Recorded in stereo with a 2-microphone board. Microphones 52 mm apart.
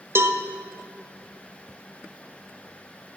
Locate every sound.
0.1 s a cowbell: 60° right (ahead or behind), 1.2 m